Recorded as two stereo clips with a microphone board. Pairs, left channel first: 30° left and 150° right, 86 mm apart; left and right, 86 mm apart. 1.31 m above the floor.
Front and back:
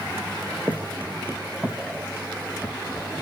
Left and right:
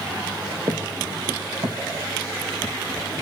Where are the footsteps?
80° right, 3 m; by 2.8 s 75° right, 4 m.